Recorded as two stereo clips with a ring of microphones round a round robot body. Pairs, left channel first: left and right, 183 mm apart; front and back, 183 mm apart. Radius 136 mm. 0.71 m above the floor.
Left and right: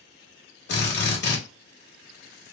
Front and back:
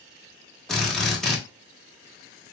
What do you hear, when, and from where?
0.7 s a drill: 85° left, 1.3 m